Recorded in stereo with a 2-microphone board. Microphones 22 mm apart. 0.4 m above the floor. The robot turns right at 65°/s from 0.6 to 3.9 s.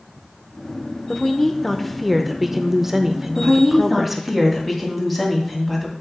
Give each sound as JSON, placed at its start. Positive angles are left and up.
{"t": 1.1, "sound": "a woman speaking", "side_deg": 15, "distance_m": 0.8}
{"t": 3.4, "sound": "a woman speaking", "azimuth_deg": -30, "distance_m": 2.5}